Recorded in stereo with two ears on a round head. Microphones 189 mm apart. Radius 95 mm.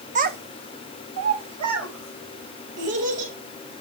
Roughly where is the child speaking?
Right.